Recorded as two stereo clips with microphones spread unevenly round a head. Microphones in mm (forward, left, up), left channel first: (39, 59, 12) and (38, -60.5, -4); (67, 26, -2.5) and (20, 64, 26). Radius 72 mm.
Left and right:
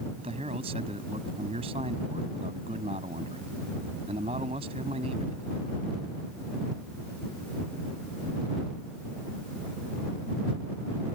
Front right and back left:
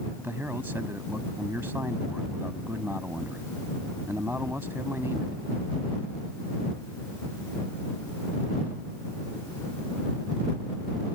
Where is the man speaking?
145° right.